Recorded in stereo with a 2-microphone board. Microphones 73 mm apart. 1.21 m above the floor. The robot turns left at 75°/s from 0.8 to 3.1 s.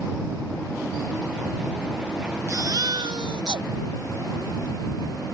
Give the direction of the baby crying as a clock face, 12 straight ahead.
1 o'clock.